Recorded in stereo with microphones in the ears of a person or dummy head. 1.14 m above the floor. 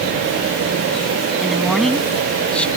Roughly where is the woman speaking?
Centre.